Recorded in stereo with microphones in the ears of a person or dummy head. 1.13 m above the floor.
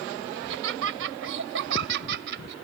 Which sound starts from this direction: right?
Laughter, at 0.3 s.